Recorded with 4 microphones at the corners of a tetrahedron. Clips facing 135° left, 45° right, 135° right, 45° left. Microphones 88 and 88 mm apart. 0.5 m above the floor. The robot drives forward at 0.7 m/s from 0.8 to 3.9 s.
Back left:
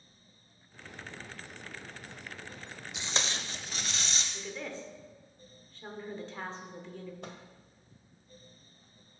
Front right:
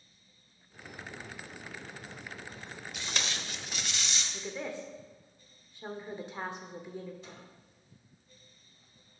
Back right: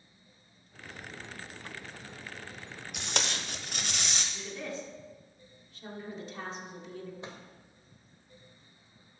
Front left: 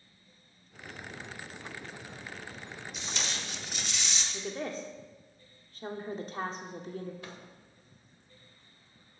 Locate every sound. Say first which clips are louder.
2.9 s tape being pulled: back left 2 dB, back right 4 dB; 160° right, 0.6 m; by 4.2 s 170° right, 1.3 m
4.3 s a woman speaking: front right 2 dB, front left 3 dB; 25° left, 1.4 m
7.2 s a microwave: back left 4 dB, back right 2 dB; 160° left, 1.5 m